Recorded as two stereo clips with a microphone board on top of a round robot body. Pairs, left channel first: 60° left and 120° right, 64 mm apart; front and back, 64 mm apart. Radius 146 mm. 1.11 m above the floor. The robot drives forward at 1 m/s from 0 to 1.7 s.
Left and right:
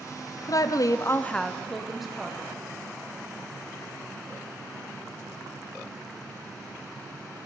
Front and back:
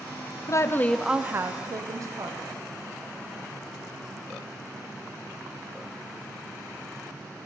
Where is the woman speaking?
35° left, 0.7 m; by 2.6 s 155° left, 0.9 m.